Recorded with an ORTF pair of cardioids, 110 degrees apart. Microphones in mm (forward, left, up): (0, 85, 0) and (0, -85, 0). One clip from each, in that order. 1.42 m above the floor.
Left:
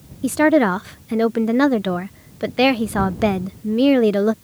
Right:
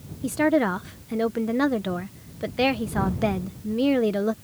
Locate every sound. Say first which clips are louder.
0.2 s a woman speaking: left 6 dB; 30° left